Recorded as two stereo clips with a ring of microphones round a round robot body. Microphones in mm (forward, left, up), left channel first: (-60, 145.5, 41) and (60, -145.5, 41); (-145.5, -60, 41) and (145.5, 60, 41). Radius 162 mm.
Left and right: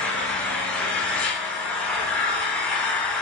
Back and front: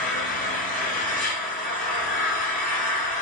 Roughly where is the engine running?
Behind.